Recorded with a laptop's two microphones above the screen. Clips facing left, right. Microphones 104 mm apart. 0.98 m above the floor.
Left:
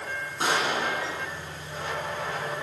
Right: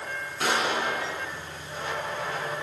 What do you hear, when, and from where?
0.4 s a pop: 25° left (ahead or behind), 4 m